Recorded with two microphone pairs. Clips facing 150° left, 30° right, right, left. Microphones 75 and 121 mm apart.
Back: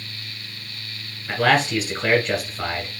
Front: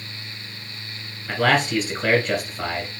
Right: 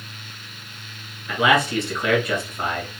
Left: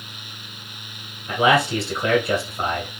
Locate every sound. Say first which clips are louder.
1.3 s a man speaking: back 1 dB, left 1 dB; 65° left, 1.5 m